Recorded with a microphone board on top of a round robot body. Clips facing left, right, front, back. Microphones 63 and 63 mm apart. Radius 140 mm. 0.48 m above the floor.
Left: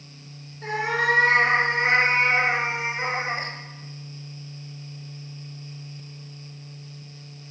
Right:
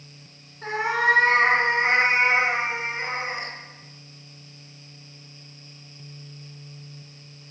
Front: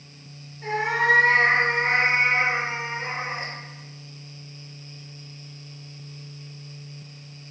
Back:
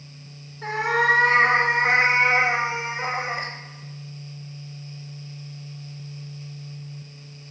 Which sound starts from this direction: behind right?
A cat meowing, at 0.6 s.